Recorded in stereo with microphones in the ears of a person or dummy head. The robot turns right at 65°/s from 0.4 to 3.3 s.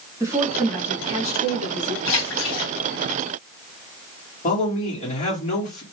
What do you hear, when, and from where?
0.2 s a woman speaking: 15° right, 2 m; by 1.9 s 85° left, 2 m
2.0 s a splash: 80° left, 2 m; by 2.7 s 120° left, 2 m
4.4 s a man speaking: 40° left (ahead or behind), 2.5 m